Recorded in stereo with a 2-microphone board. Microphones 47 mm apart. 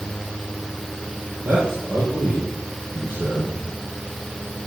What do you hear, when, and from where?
1.4 s a man speaking: 40° right (ahead or behind), 4.5 m